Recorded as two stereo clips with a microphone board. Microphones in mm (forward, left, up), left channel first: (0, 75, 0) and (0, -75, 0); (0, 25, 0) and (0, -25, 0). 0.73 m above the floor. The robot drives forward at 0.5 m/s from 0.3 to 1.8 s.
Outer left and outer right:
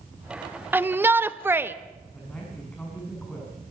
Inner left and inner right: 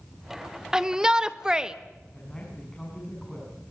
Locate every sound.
0.7 s a shout: 15° right (ahead or behind), 0.8 m
2.1 s a man speaking: 10° left (ahead or behind), 6 m